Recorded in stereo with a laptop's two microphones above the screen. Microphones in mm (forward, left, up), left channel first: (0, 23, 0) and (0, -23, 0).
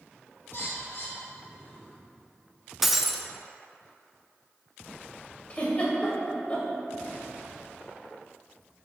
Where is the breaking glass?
5° right (ahead or behind), 0.6 m.